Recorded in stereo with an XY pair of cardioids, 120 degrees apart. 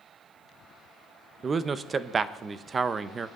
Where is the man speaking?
35° right, 0.7 m.